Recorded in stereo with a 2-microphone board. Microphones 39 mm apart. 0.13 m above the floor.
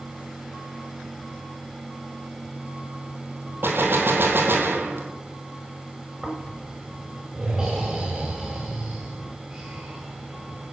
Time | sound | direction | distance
3.6 | a gunshot | 70° right (ahead or behind) | 1.8 m
6.2 | snoring | 15° right (ahead or behind) | 7 m